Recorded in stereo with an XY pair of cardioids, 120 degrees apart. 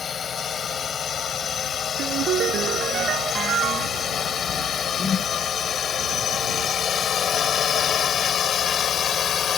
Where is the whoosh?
35° left.